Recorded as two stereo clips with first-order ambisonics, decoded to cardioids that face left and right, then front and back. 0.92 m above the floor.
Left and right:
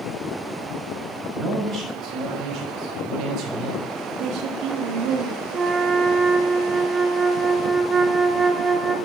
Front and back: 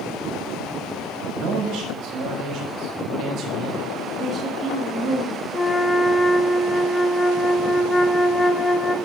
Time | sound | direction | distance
1.4 | a man speaking | 155° right | 5.5 m
4.2 | a woman speaking | 125° right | 2.5 m
5.5 | a flute | 60° right | 0.6 m